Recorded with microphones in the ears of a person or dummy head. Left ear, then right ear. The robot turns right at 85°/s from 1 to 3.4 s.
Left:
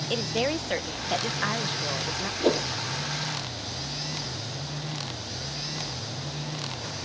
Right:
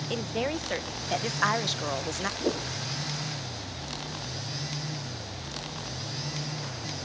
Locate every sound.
0.1 s a woman speaking: 170° left; by 2.3 s 80° right
2.4 s a whoosh: 55° left (ahead or behind); by 2.7 s 30° left (ahead or behind)